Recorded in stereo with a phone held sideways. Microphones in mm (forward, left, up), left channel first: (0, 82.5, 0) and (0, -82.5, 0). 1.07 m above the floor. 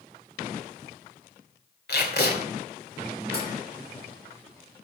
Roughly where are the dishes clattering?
Left.